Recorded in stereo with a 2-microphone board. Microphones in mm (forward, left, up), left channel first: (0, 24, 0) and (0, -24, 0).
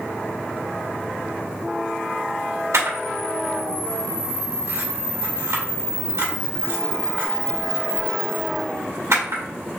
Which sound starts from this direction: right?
A camera shutter, at 2.7 s.